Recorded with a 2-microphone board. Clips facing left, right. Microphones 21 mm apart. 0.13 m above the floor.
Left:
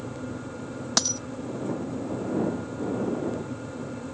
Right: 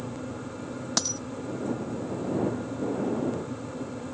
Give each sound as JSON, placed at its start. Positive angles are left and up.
{"t": 1.0, "sound": "a dropped coin", "side_deg": 15}